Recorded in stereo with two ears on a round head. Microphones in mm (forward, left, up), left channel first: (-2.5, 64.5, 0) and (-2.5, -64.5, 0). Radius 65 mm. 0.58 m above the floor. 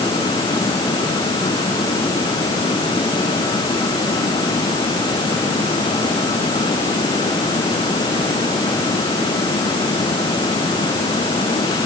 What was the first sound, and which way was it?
Only background noise.